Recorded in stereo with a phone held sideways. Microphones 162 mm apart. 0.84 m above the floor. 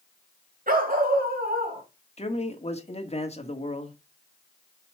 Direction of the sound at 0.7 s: 60° right (ahead or behind).